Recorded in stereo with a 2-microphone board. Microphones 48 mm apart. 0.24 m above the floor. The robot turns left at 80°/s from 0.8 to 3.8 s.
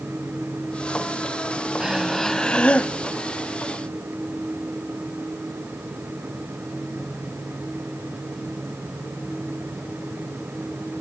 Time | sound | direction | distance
1.8 | breathing | 160° right | 0.9 m